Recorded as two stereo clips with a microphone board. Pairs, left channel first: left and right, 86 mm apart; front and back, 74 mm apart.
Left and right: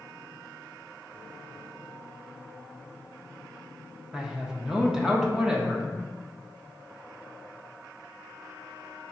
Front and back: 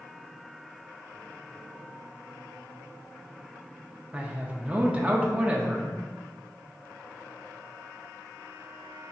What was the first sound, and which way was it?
A man speaking, 155° right.